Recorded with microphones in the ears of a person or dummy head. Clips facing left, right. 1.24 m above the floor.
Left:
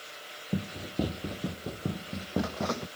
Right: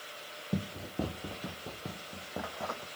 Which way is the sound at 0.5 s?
10° left (ahead or behind).